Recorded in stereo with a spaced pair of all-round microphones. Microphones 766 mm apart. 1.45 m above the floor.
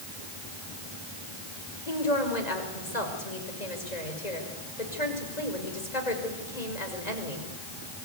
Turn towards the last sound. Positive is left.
turn(degrees=55)  # may be behind; listen again after turning